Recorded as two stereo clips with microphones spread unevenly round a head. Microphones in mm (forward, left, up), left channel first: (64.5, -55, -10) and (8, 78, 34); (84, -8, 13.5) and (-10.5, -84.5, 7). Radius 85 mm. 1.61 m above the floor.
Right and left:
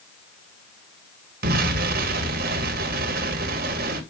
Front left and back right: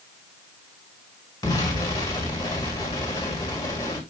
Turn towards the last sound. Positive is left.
turn(degrees=105)